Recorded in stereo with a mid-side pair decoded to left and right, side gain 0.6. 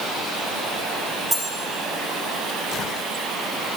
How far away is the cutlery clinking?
About 3.5 m.